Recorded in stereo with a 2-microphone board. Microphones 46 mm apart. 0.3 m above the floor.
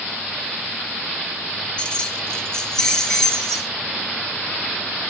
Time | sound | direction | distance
1.8 | keys jangling | 20° left (ahead or behind) | 0.6 m